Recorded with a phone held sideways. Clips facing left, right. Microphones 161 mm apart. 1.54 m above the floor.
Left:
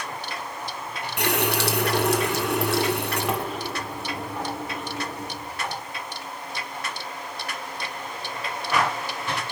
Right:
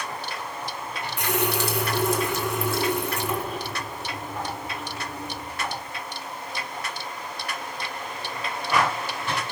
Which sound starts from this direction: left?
A running tap, at 1.2 s.